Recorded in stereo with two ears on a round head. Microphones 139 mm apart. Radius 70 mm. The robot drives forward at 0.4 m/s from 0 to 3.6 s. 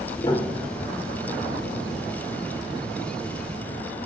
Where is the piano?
25° left (ahead or behind), 1.1 m; by 1.0 s 30° left (ahead or behind), 1.1 m.